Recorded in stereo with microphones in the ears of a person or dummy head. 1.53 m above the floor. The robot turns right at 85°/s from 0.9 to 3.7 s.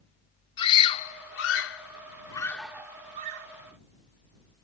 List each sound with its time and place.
0.6 s a scream: 35° left (ahead or behind); by 3.5 s 70° right (ahead or behind)